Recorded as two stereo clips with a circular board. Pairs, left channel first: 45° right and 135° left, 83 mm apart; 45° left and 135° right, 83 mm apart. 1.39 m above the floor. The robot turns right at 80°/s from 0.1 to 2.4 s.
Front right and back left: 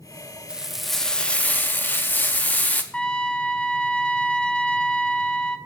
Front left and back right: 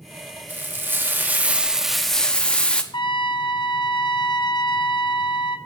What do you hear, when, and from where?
0.5 s frying: 165° right, 0.8 m; by 2.8 s 10° right, 0.8 m
2.9 s a trumpet: 35° left, 0.5 m